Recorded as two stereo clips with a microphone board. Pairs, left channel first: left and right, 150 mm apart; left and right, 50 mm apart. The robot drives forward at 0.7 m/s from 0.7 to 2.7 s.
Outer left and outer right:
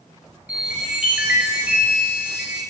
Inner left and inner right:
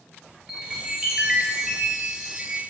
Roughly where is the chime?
Centre.